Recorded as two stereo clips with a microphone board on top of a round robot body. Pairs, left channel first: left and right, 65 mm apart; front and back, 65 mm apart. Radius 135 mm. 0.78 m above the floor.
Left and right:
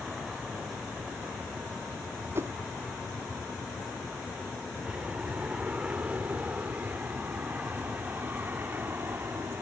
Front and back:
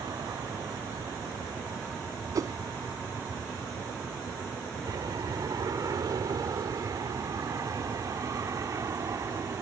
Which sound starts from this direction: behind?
An aircraft, at 0.0 s.